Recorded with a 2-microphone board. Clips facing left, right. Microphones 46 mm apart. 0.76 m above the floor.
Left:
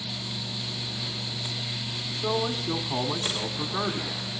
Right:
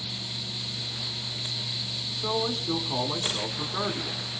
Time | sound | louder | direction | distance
2.1 | a man speaking | left 1 dB | 10° left (ahead or behind) | 2.5 m